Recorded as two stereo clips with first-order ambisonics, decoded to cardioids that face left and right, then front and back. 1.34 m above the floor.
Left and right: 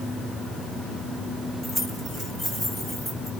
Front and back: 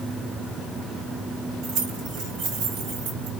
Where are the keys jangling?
175° left, 2.5 m.